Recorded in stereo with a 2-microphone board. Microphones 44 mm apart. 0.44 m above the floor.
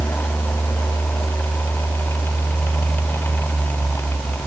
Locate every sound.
Only background noise.